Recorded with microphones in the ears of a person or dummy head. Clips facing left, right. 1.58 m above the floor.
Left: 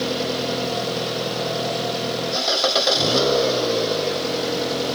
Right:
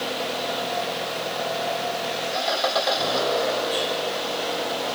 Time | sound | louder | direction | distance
0.0 | an engine running | left 5 dB | 45° left (ahead or behind) | ?